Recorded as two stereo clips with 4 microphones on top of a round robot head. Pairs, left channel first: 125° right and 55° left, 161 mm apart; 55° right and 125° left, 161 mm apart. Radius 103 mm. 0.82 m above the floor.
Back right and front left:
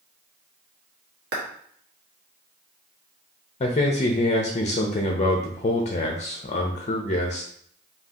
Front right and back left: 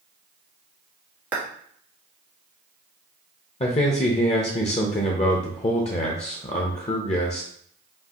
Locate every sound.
1.3 s a clap: 45° left, 1.6 m
3.6 s a man speaking: 95° right, 0.6 m